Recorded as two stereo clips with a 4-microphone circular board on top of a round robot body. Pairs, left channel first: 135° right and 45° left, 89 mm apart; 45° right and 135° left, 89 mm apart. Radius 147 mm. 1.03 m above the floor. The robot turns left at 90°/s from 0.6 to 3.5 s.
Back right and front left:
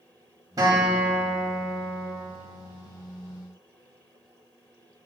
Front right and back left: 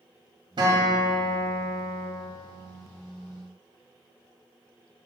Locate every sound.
0.6 s a guitar: 95° left, 1.9 m; by 2.1 s 35° right, 1.9 m